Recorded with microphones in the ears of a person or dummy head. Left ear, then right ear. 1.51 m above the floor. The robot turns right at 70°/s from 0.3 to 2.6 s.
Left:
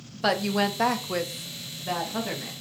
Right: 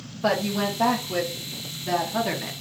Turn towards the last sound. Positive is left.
turn(degrees=-155)